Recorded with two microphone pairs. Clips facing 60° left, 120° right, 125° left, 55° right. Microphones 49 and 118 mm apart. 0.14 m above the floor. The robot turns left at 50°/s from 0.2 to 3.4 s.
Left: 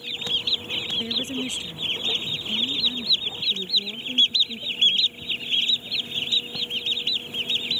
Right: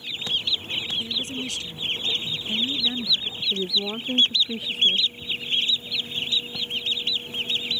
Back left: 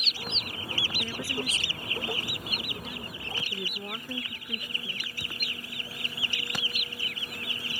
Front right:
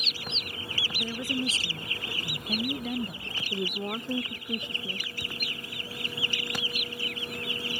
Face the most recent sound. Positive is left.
turn(degrees=-125)